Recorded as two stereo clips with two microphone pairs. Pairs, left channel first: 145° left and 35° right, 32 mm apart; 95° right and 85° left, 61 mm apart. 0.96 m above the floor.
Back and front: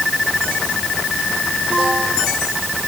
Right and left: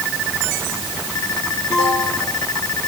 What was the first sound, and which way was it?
Only background noise.